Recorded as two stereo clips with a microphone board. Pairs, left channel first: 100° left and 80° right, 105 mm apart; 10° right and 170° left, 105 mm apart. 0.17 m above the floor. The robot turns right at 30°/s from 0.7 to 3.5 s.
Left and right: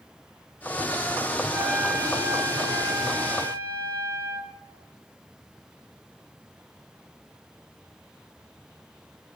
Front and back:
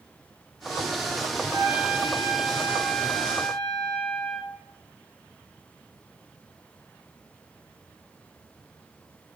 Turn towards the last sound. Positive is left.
turn(degrees=-70)